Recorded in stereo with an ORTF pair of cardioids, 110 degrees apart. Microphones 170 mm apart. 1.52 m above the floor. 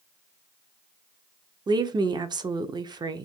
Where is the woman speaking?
25° right, 0.6 m.